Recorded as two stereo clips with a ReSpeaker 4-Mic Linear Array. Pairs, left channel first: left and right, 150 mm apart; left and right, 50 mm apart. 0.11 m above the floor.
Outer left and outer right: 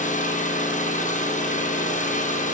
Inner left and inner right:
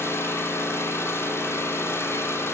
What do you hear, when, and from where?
0.0 s an engine running: 55° left (ahead or behind), 3 m